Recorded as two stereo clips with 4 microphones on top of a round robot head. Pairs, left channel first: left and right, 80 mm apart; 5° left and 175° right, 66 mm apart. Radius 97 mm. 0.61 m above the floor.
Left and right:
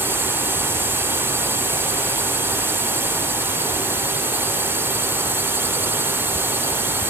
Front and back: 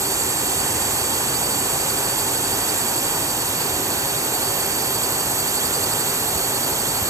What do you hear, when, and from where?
0.0 s a drone: 150° right